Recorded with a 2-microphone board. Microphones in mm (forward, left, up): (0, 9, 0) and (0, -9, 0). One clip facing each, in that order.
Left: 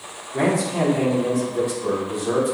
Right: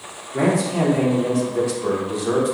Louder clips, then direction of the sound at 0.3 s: Right 1 dB; 5° right (ahead or behind).